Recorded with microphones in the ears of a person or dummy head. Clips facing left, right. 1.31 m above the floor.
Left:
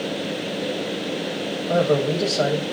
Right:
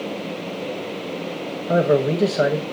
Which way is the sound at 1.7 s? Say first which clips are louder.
Right 2 dB; 35° right (ahead or behind).